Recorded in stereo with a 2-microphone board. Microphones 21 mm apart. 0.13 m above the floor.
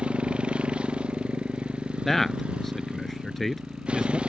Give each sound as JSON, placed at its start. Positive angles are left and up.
{"t": 0.0, "sound": "a motorcycle", "side_deg": -60}
{"t": 2.0, "sound": "a man speaking", "side_deg": 10}